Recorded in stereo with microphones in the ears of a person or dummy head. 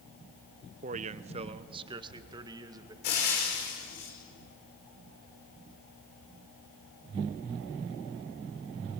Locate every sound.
0.8 s a man speaking: 35° right (ahead or behind), 0.6 m; by 2.9 s 15° right (ahead or behind), 1.9 m
3.0 s frying: 45° left (ahead or behind), 5 m